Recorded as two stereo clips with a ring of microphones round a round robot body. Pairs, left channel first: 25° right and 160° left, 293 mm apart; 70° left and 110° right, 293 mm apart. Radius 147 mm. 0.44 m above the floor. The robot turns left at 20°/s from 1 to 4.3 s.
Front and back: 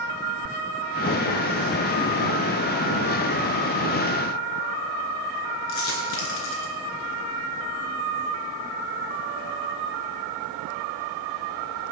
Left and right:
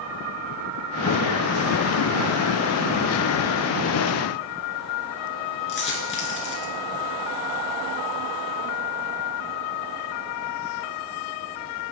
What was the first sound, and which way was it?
A dropped coin, 15° left.